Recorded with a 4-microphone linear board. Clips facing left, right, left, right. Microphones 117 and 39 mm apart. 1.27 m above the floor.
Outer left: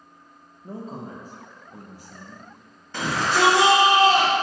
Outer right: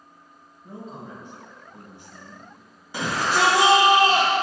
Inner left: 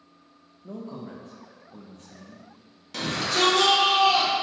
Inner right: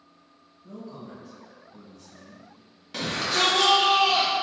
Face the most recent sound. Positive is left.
turn(degrees=-10)  # may be behind; listen again after turning